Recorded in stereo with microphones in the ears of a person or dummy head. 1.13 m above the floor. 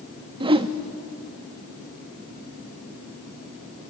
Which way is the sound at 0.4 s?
25° right (ahead or behind).